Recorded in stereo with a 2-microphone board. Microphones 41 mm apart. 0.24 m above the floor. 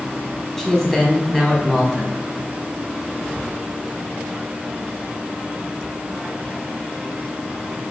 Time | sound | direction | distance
0.6 | a man speaking | 10° left (ahead or behind) | 1.4 m